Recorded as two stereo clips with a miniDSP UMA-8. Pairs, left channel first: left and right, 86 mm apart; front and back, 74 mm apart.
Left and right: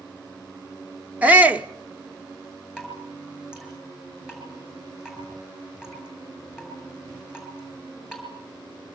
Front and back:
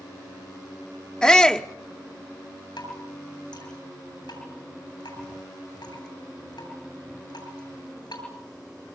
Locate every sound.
1.2 s a shout: 60° right, 0.8 m
2.8 s dripping: 10° right, 8.5 m